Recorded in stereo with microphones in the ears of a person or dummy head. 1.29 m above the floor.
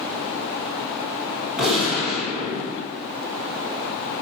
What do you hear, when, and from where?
1.6 s a gunshot: centre (ahead or behind), 1.7 m